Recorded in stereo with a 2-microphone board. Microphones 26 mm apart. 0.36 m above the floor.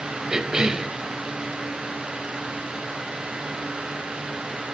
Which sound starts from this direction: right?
A cough, at 0.3 s.